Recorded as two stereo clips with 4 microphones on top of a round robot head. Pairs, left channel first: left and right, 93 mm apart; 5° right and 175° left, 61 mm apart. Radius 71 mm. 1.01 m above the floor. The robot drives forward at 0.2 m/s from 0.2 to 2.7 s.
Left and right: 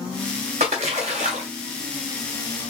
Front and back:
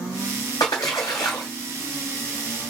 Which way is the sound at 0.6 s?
60° right.